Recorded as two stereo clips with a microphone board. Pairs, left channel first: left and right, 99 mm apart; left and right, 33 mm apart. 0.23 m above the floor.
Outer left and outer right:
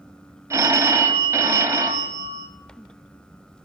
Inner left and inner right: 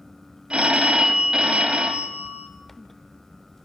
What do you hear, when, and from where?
0.5 s a phone ringing: 30° right (ahead or behind), 0.6 m